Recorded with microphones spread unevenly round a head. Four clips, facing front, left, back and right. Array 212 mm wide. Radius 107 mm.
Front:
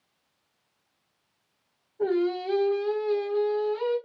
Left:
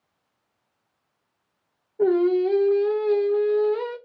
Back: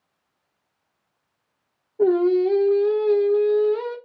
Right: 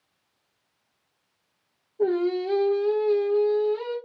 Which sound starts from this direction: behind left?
Singing, at 2.0 s.